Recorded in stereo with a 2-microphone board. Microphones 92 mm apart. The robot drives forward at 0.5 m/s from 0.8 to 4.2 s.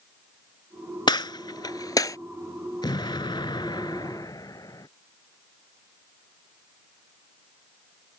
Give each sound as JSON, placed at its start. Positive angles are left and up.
{"t": 1.1, "sound": "a gunshot", "side_deg": 65}
{"t": 2.8, "sound": "an explosion", "side_deg": 60}